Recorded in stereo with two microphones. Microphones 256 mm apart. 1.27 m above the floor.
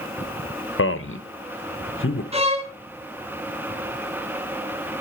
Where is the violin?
25° right (ahead or behind), 1.4 m.